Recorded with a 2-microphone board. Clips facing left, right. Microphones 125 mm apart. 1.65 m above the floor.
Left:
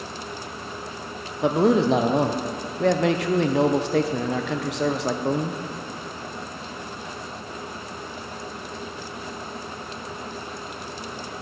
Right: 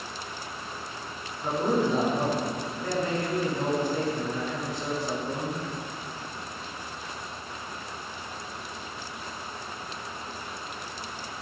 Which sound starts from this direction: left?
A man speaking, at 1.4 s.